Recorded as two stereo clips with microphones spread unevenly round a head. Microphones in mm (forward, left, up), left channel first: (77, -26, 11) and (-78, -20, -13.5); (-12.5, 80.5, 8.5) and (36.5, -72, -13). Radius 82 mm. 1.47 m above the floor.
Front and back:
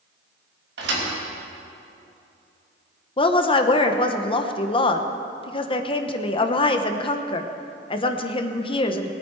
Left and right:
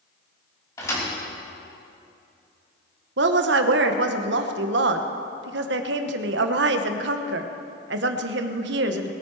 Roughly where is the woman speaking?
Ahead right.